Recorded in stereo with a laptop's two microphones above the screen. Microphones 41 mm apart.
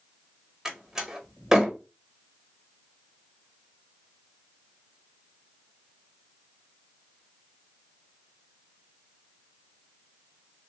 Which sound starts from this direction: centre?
A door slam, at 0.7 s.